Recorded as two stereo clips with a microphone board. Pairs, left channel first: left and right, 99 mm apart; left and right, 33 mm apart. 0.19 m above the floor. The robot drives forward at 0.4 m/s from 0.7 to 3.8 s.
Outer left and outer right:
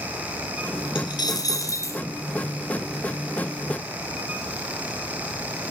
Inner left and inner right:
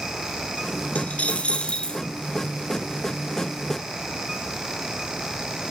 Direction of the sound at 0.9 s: 50° left (ahead or behind).